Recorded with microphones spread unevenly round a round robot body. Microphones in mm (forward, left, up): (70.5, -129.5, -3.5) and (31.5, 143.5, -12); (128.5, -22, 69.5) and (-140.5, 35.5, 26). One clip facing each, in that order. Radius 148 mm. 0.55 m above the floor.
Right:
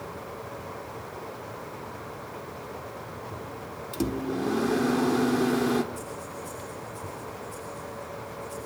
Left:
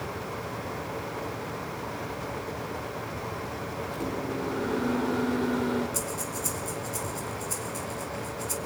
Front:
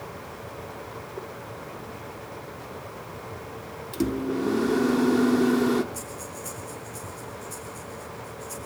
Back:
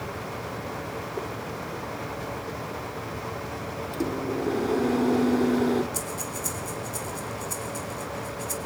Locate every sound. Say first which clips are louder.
3.9 s a microwave: right 5 dB, front 3 dB; 85° right, 1.3 m
5.9 s breathing: left 3 dB, back 4 dB; 120° left, 3.5 m